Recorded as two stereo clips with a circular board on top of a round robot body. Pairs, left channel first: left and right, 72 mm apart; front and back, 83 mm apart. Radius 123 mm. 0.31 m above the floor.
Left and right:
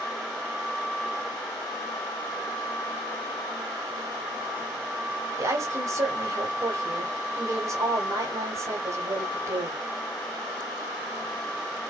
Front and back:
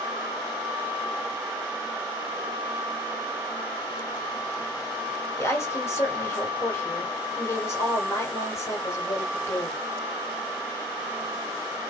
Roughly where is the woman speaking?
Ahead right.